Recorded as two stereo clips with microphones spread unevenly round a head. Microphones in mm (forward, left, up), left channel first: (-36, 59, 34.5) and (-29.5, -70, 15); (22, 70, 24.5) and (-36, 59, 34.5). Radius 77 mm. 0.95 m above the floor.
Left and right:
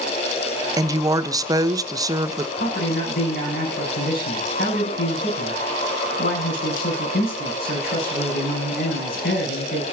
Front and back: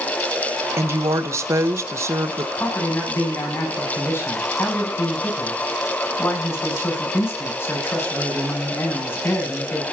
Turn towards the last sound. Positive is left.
turn(degrees=60)